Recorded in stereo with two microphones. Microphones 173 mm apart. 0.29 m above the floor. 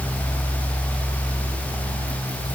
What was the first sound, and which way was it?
Only background noise.